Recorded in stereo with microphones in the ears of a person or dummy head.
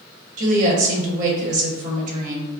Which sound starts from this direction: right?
A woman speaking, at 0.4 s.